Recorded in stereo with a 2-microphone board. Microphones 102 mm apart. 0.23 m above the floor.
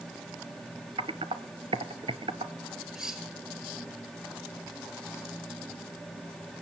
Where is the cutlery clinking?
5° right (ahead or behind), 2.5 m.